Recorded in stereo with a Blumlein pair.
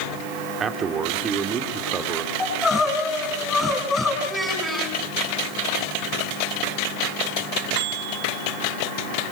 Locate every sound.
0.6 s a man speaking: 20° right, 2.5 m
2.4 s crying: 15° left, 6 m
4.2 s a child speaking: 5° right, 8 m